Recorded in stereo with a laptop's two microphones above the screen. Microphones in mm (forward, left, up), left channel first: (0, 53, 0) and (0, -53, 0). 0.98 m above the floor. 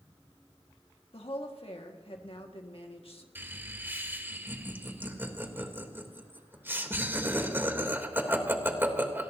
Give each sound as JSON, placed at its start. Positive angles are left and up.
{"t": 1.1, "sound": "a woman speaking", "side_deg": 65, "distance_m": 1.7}
{"t": 3.4, "sound": "laughter", "side_deg": -20, "distance_m": 3.0}